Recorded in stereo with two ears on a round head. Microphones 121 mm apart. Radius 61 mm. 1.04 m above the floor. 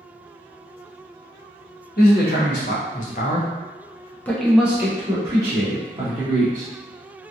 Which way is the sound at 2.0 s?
70° left (ahead or behind).